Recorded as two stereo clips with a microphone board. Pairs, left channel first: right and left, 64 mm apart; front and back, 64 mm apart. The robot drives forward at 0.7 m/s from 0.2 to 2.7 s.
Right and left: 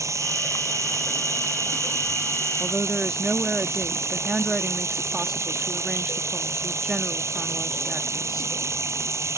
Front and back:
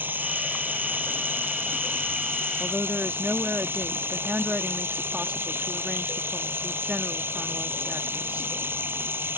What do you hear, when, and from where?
0.0 s running water: 125° left; by 9.4 s 130° left
2.6 s a woman speaking: 155° left; by 8.6 s 160° left